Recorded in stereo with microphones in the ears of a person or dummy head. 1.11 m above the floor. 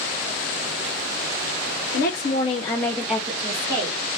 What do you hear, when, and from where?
1.9 s a woman speaking: 45° left (ahead or behind), 0.8 m; by 4.0 s 25° right (ahead or behind), 1.2 m